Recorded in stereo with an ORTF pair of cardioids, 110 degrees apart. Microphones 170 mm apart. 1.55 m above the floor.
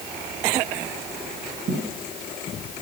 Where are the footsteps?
50° right, 5 m.